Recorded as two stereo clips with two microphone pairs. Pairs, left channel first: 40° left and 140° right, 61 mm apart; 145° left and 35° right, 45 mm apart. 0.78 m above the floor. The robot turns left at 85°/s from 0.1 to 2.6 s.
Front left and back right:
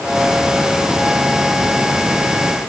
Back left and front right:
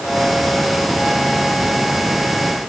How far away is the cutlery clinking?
No cutlery clinking in this recording.